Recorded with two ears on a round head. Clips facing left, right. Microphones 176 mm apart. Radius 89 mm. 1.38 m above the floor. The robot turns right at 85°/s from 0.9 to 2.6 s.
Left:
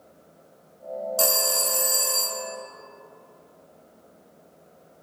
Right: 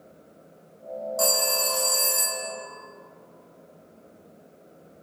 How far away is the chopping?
No chopping in this recording.